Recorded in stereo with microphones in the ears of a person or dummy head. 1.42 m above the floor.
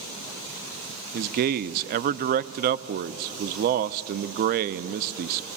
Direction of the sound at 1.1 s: 50° right (ahead or behind).